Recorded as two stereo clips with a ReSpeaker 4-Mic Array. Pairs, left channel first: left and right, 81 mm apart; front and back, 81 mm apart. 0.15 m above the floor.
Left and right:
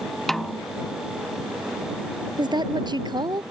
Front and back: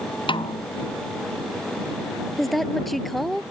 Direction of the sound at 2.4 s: 90° right.